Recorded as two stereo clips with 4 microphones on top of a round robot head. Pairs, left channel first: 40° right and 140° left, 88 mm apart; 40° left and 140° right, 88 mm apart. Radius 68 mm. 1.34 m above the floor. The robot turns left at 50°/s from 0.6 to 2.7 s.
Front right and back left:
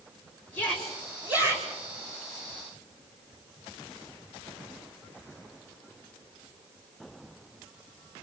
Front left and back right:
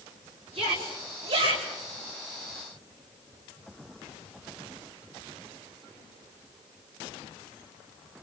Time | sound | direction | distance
0.5 | a shout | 115° right | 7.5 m